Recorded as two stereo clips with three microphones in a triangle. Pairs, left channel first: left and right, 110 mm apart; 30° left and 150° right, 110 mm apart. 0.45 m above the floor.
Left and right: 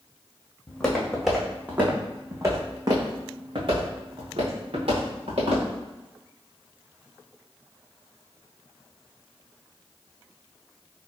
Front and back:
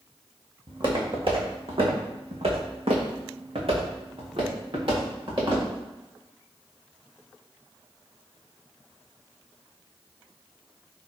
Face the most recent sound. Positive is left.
turn(degrees=-110)